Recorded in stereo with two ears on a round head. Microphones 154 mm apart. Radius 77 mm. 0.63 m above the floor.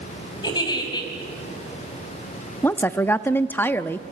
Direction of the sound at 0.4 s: 25° left (ahead or behind).